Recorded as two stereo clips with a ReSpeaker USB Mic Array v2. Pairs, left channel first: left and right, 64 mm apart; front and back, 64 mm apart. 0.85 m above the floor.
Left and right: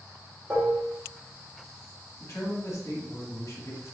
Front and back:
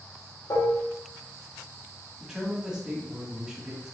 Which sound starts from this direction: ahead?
Dishes clattering, at 0.5 s.